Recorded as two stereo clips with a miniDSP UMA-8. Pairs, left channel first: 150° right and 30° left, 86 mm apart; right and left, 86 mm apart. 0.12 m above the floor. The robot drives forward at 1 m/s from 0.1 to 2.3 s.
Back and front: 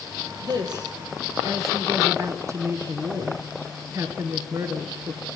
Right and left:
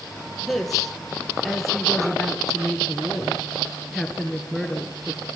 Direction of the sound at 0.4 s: Straight ahead.